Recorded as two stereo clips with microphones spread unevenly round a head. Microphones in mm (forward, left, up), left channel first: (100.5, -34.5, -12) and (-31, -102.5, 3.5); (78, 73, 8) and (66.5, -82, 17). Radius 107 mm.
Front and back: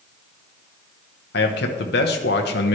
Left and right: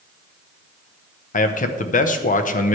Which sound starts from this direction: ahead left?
A man speaking, at 1.3 s.